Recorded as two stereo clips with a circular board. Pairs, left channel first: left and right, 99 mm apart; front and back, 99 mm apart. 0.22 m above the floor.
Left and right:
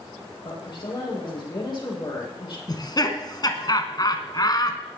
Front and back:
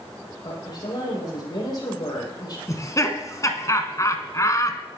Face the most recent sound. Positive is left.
turn(degrees=50)